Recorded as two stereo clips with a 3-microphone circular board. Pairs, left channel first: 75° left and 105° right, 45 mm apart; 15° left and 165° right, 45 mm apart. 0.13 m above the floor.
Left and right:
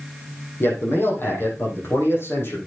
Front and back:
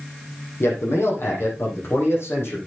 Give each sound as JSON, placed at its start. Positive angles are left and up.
{"t": 0.6, "sound": "a man speaking", "azimuth_deg": 40, "distance_m": 6.5}